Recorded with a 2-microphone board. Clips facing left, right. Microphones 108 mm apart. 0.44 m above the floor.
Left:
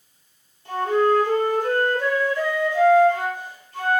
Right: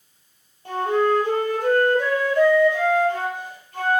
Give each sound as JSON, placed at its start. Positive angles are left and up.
{"t": 0.7, "sound": "a flute", "side_deg": -55, "distance_m": 3.0}